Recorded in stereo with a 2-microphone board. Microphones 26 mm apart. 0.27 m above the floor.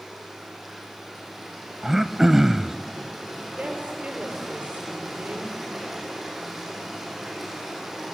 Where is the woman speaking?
60° right (ahead or behind), 6 m.